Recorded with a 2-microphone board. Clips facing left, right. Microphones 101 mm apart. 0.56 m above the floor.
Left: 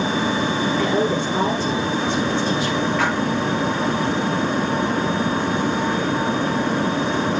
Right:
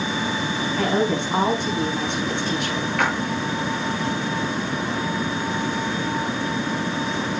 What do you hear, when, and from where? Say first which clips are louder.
0.8 s a woman speaking: right 1 dB; 60° right (ahead or behind), 7 m
3.0 s a splash: right 2 dB; 60° right (ahead or behind), 5.5 m